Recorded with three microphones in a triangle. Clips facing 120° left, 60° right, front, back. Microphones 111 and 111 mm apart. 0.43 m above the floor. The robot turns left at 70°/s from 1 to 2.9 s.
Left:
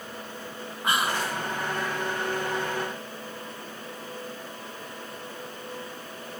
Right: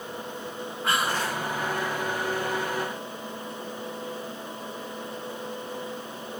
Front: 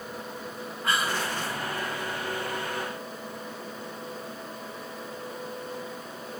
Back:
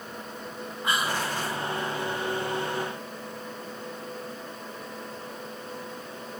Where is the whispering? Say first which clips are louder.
Even, even; 150° left, 0.8 m; by 1.4 s 125° left, 0.8 m.